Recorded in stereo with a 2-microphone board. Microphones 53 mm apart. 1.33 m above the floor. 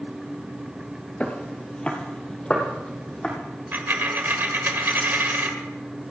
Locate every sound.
1.2 s footsteps: 20° left (ahead or behind), 1.6 m
3.7 s a dropped coin: 40° right (ahead or behind), 1.7 m